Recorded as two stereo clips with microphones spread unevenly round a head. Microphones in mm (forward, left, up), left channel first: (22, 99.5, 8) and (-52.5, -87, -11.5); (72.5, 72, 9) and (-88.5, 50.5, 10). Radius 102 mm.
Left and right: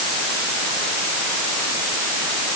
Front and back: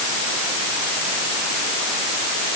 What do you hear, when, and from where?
Only background noise.